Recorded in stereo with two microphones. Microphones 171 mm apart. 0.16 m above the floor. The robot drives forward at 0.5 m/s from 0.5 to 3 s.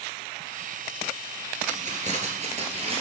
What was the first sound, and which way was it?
Keys jangling, 50° right (ahead or behind).